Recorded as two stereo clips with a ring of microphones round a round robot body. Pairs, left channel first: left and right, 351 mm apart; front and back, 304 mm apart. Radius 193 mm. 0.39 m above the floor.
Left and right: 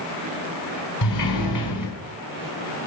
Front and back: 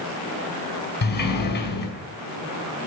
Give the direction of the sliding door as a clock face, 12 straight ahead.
10 o'clock.